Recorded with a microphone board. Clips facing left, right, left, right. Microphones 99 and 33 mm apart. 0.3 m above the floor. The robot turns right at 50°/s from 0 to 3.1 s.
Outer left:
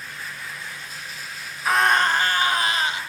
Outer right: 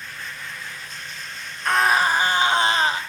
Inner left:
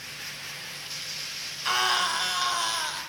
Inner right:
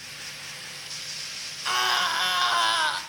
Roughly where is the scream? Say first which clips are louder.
Even, inner right 1 dB; behind.